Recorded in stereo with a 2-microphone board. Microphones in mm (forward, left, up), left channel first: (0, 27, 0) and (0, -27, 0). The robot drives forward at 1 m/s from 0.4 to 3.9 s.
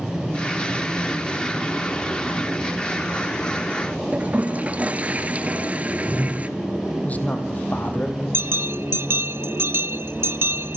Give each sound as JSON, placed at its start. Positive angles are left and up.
{"t": 4.1, "sound": "a toilet flushing", "side_deg": -30, "distance_m": 1.6}
{"t": 7.0, "sound": "a man speaking", "side_deg": 30, "distance_m": 3.5}
{"t": 8.3, "sound": "a bell", "side_deg": -55, "distance_m": 0.6}